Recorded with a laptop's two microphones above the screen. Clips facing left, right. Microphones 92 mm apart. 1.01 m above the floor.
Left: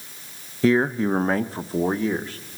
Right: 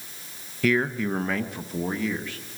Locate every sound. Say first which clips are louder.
0.6 s a man speaking: left 5 dB; 30° left (ahead or behind), 0.8 m; by 2.6 s 35° left (ahead or behind), 1.9 m